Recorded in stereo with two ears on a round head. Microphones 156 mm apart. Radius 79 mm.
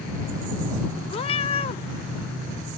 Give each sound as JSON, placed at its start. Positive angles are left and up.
{"t": 1.1, "sound": "a cat meowing", "side_deg": 35}